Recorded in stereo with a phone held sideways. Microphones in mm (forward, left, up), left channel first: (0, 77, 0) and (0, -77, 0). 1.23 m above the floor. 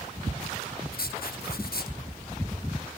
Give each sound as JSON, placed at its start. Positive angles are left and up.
{"t": 0.9, "sound": "writing", "side_deg": 75, "distance_m": 0.7}